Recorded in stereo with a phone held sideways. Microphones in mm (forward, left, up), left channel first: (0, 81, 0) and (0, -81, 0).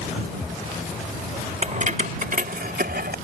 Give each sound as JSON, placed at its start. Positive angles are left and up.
{"t": 1.6, "sound": "keys jangling", "side_deg": -45}